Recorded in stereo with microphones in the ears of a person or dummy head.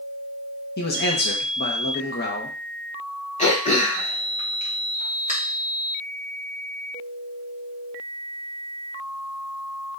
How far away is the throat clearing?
About 0.8 m.